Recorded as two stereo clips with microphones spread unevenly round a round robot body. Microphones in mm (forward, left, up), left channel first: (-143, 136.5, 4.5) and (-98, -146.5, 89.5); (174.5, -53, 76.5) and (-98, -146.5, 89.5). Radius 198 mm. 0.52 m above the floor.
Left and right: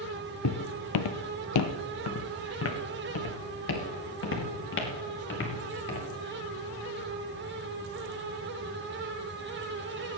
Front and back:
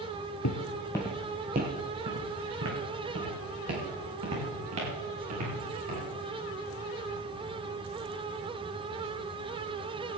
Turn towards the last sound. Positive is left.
turn(degrees=150)